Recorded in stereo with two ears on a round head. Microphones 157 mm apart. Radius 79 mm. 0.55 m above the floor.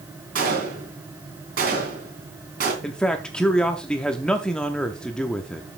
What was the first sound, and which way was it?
A gunshot, 55° right (ahead or behind).